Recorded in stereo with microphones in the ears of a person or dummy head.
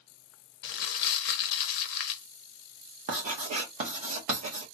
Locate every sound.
0.6 s crumpling: 60° left (ahead or behind), 0.7 m
3.1 s writing: 40° right (ahead or behind), 0.8 m